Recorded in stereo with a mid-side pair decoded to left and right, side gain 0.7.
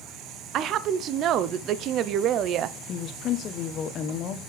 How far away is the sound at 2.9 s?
About 1.0 m.